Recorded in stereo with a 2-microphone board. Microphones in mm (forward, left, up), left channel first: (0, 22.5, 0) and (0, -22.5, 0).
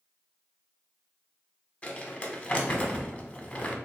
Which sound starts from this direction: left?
Crumpling, at 1.8 s.